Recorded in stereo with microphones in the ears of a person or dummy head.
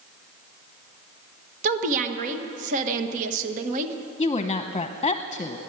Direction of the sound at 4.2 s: 20° left (ahead or behind).